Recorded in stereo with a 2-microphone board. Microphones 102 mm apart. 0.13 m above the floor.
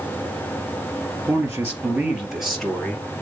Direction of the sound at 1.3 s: 25° right (ahead or behind).